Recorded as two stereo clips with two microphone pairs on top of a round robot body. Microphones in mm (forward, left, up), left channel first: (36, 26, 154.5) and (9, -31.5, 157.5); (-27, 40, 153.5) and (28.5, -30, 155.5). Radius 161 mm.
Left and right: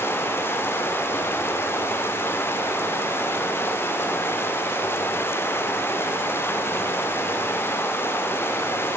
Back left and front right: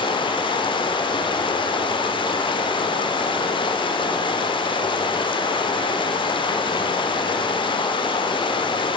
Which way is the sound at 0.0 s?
115° left.